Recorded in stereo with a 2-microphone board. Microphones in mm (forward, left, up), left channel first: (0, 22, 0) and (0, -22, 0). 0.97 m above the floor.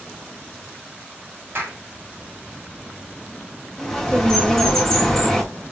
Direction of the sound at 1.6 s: 60° right (ahead or behind).